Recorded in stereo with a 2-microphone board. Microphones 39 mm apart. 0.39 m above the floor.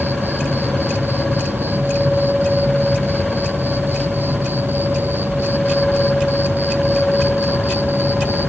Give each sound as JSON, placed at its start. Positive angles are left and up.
{"t": 0.0, "sound": "an insect", "side_deg": -60}